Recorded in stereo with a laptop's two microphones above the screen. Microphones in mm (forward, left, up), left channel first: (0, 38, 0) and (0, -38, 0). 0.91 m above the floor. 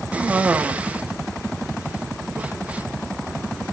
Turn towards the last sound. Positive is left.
turn(degrees=-20)  # may be behind; listen again after turning